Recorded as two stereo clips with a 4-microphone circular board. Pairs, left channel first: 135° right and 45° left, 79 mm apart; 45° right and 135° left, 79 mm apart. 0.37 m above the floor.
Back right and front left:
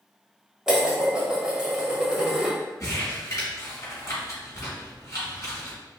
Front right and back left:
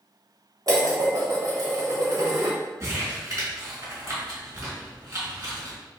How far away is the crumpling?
About 1.5 m.